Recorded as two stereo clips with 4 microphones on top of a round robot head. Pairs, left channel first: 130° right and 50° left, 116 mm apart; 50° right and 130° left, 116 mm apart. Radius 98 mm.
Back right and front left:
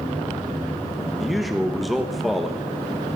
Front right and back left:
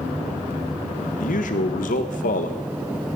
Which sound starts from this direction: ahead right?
A man speaking, at 1.2 s.